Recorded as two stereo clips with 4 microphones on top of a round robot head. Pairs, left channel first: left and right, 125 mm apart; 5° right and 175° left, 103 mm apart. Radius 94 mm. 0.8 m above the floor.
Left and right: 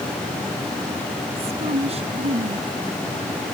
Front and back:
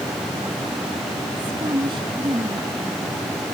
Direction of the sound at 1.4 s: 130° right.